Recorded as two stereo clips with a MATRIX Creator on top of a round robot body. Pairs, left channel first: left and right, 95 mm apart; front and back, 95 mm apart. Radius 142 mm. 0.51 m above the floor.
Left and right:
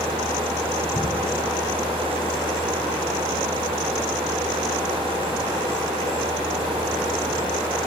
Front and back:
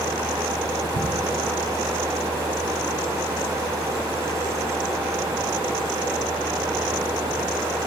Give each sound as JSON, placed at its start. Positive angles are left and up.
{"t": 0.9, "sound": "an explosion", "azimuth_deg": 170, "distance_m": 4.5}